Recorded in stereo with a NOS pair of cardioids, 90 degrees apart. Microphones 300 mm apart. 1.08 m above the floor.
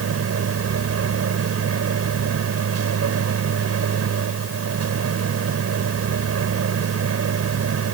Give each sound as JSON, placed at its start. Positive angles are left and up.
{"t": 0.0, "sound": "a machine running", "azimuth_deg": -50}